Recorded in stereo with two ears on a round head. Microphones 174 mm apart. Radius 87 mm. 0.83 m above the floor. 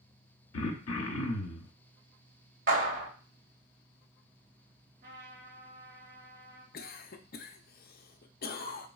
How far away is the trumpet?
About 2 m.